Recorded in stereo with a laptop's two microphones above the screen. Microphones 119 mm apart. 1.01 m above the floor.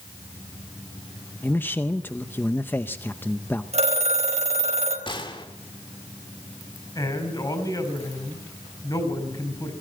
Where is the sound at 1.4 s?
15° left (ahead or behind), 0.6 m.